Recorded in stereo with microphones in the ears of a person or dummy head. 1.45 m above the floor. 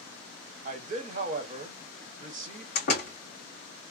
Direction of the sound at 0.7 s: 35° right (ahead or behind).